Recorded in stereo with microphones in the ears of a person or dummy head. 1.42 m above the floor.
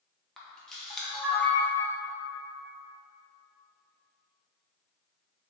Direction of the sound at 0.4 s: Centre (ahead or behind).